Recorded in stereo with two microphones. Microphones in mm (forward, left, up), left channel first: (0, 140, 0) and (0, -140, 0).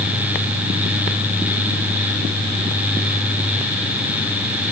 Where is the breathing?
I don't hear breathing.